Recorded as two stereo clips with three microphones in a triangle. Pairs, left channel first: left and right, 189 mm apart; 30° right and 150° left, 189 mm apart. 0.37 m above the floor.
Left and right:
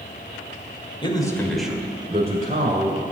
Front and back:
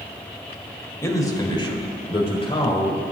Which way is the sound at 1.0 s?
40° left.